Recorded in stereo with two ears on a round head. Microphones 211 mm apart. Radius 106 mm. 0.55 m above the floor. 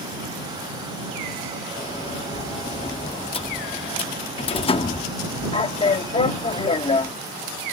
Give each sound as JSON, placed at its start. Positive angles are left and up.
{"t": 1.8, "sound": "a sliding door", "side_deg": 25}